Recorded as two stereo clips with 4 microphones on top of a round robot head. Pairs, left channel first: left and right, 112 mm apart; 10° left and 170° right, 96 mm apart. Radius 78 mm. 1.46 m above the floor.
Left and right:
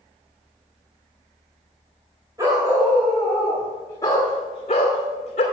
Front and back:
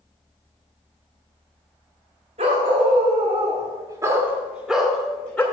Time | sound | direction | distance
2.4 | a dog barking | 160° right | 2.0 m